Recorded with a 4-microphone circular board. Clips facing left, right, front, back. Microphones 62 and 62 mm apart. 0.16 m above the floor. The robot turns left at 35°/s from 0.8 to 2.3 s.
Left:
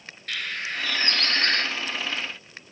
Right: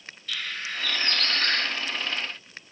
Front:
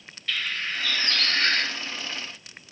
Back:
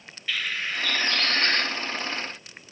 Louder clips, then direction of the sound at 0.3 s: Left 2 dB, even; 105° left.